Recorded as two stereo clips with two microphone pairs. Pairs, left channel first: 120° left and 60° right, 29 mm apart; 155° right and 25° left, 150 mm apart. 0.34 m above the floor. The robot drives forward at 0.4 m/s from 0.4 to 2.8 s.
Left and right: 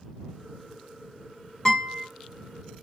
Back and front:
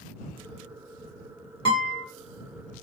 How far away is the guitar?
About 1.7 m.